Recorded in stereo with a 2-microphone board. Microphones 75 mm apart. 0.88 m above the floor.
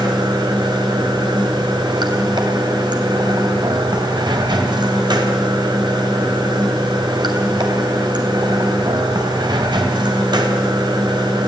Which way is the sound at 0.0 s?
85° right.